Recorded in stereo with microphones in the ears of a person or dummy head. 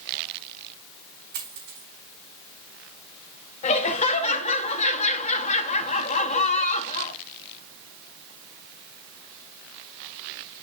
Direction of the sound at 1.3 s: 60° right (ahead or behind).